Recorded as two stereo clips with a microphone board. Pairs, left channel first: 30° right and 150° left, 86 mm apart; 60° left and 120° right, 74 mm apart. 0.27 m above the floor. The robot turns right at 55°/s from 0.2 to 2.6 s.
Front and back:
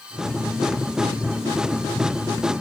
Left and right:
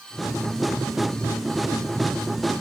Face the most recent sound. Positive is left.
No sound to turn to.